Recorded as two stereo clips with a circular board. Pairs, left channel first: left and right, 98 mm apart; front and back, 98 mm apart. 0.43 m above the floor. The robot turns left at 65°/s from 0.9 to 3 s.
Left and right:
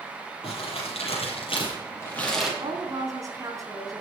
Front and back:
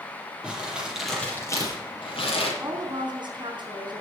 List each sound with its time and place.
0.4 s crumpling: 100° left, 7.5 m; by 2.5 s 5° right, 7.5 m
2.6 s a woman speaking: 120° right, 4 m; by 4.0 s 145° right, 4 m